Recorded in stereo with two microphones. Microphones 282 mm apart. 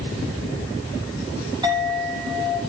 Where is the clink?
15° right (ahead or behind), 5.5 m.